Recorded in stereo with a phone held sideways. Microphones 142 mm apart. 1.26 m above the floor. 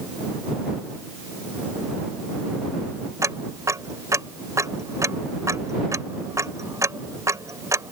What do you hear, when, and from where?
3.2 s ticking: 20° right (ahead or behind)